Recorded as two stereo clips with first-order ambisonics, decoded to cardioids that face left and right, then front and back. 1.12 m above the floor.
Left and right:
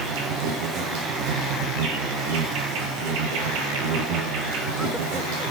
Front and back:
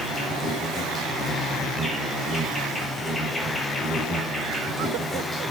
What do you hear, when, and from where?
0.0 s an insect: 90° right, 2.5 m